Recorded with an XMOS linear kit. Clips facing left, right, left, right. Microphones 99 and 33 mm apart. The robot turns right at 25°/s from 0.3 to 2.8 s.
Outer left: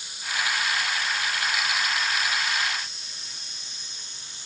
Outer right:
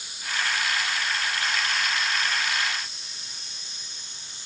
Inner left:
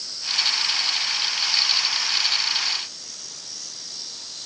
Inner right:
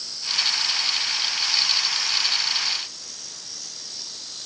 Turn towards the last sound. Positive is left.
No sound to turn to.